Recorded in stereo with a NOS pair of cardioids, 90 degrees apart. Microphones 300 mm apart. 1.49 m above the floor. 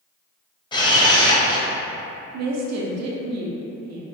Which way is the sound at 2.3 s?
55° right.